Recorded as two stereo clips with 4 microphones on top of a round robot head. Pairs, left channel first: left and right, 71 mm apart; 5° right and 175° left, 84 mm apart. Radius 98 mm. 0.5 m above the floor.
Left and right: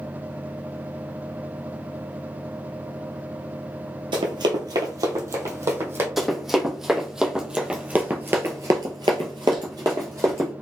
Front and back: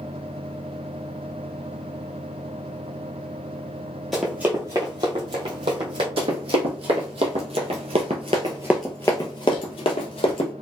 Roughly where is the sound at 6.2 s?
Behind.